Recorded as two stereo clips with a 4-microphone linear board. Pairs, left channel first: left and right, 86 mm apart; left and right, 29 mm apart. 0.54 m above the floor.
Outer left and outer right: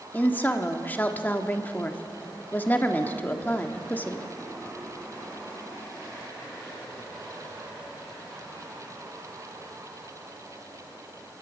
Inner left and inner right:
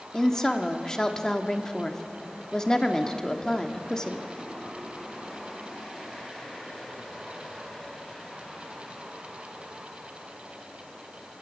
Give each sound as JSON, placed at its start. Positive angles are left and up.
{"t": 0.1, "sound": "a woman speaking", "side_deg": 20, "distance_m": 1.2}